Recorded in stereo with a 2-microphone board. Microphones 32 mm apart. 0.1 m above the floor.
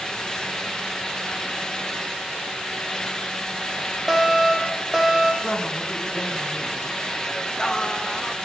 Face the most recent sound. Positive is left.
turn(degrees=25)  # may be behind; listen again after turning